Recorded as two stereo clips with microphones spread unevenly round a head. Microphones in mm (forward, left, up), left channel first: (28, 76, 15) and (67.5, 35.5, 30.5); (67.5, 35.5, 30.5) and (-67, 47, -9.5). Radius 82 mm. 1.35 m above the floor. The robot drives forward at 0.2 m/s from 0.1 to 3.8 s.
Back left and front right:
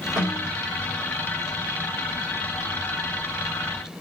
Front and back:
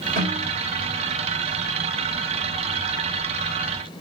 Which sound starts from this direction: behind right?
A snare drum, at 0.2 s.